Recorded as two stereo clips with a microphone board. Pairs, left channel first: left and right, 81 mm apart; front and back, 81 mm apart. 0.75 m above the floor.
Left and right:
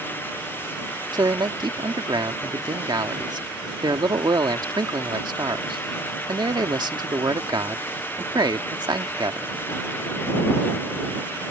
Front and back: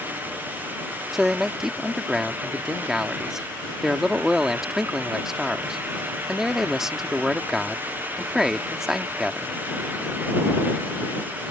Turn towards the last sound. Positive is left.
turn(degrees=-95)